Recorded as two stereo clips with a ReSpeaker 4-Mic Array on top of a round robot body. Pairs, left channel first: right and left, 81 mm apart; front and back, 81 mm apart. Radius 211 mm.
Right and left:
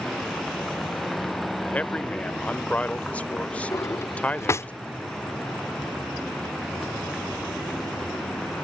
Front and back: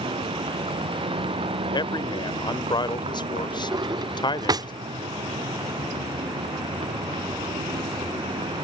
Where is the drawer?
145° right.